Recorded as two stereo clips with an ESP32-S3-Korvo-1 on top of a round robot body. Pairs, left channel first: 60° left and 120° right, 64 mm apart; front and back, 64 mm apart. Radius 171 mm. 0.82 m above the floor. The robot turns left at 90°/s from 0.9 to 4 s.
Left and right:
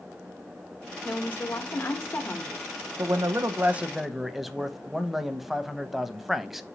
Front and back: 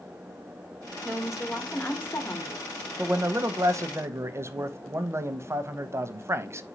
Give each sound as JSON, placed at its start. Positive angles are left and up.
{"t": 1.1, "sound": "a woman speaking", "azimuth_deg": 130, "distance_m": 1.1}
{"t": 3.0, "sound": "a man speaking", "azimuth_deg": -115, "distance_m": 0.7}